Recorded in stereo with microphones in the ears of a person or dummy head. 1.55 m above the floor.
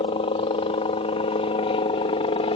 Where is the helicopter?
30° left (ahead or behind).